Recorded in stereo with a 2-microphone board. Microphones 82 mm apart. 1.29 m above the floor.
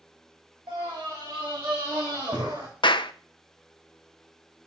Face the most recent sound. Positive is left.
turn(degrees=85)